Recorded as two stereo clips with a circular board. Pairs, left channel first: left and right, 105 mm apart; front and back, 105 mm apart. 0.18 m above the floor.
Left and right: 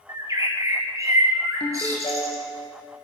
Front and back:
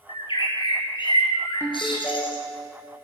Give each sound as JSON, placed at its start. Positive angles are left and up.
{"t": 0.1, "sound": "a bird", "azimuth_deg": -35, "distance_m": 2.5}
{"t": 1.6, "sound": "a ringtone", "azimuth_deg": 65, "distance_m": 4.0}